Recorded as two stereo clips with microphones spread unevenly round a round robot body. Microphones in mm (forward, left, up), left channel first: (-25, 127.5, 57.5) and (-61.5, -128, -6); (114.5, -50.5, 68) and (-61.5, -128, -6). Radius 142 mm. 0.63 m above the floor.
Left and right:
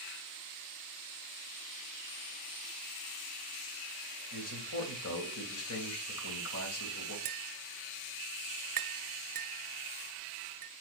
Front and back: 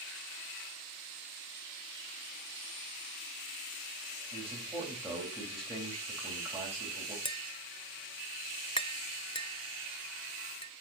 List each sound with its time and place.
4.3 s a man speaking: 115° left, 3 m
7.2 s tapping: 35° right, 0.6 m